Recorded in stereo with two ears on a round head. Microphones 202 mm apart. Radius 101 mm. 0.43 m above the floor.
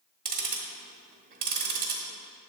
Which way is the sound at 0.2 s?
40° right (ahead or behind).